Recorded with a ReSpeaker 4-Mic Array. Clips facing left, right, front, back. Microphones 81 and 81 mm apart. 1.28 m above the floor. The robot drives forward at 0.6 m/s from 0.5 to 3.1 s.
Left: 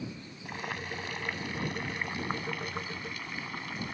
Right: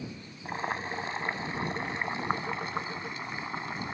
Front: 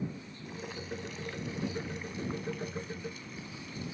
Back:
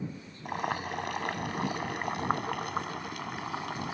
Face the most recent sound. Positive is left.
turn(degrees=-155)